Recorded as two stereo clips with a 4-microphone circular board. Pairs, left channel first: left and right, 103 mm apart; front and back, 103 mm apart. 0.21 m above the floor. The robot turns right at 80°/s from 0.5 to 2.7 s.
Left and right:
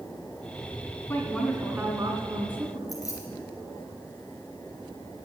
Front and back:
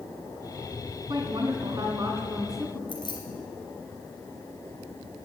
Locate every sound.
1.1 s a woman speaking: 155° left, 2 m; by 2.8 s 75° right, 2 m
2.9 s keys jangling: 35° left, 3 m